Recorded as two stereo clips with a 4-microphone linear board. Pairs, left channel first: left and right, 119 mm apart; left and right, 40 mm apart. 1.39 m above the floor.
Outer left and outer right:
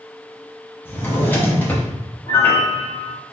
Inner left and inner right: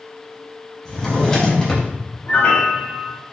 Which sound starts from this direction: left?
A piano, at 2.3 s.